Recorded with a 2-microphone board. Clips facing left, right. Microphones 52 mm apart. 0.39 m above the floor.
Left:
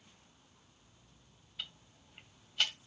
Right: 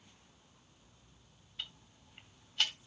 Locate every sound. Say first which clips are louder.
1.6 s ticking: even; 5° left (ahead or behind), 2 m